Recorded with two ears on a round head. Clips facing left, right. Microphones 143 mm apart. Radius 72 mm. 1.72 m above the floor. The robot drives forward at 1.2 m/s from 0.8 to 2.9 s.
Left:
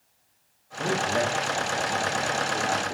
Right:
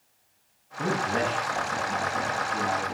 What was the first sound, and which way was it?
A man speaking, 35° right (ahead or behind).